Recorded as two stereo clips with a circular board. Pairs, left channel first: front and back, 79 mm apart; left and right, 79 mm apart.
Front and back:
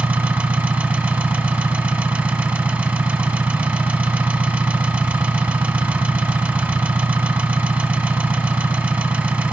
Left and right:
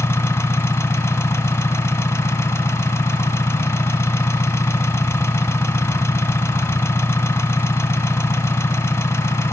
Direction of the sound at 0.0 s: 125° left.